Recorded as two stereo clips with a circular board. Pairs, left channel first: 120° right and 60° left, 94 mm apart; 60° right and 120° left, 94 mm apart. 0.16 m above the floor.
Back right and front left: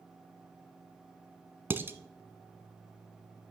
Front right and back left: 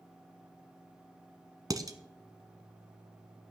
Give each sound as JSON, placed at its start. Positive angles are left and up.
{"t": 1.7, "sound": "dishes clattering", "azimuth_deg": 115, "distance_m": 1.2}